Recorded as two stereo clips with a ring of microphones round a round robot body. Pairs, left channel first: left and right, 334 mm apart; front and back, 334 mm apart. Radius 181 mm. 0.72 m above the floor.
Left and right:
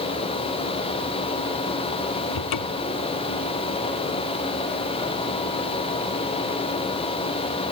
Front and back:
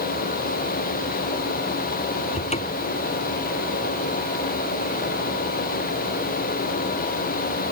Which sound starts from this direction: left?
A cupboard door, at 2.3 s.